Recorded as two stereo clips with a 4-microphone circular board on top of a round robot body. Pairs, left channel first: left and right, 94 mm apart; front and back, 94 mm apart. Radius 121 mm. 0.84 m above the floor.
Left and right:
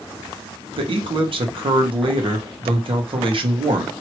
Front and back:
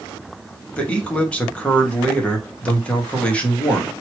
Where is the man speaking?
75° right, 1.3 m.